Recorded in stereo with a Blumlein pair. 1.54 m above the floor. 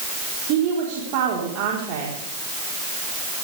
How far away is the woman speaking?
About 4.5 m.